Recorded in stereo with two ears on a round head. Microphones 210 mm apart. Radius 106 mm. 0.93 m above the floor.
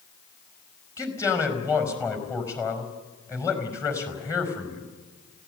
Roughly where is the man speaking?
Centre.